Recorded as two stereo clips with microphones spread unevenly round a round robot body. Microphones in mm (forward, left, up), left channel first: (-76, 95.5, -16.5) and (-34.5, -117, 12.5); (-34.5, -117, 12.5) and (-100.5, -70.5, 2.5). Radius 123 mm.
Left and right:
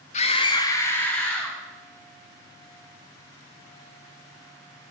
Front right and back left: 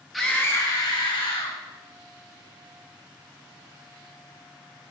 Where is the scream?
65° left, 0.8 m; by 1.6 s 15° left, 2 m.